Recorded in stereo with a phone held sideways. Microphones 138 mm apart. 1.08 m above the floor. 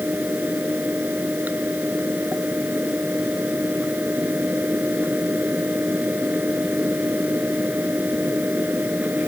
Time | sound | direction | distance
0.0 | a fan | 10° right (ahead or behind) | ?